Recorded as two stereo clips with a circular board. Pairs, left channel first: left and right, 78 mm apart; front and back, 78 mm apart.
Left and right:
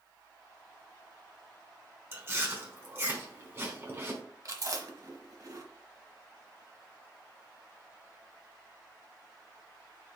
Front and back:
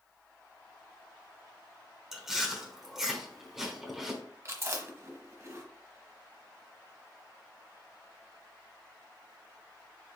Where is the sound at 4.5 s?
125° right, 1.0 m.